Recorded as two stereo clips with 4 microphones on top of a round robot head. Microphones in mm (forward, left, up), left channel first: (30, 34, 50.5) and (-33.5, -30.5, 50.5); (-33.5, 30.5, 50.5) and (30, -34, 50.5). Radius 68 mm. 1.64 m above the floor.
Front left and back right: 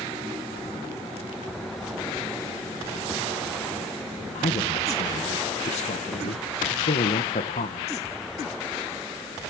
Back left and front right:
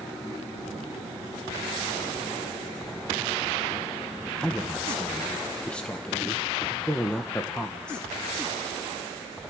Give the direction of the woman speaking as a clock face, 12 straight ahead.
10 o'clock.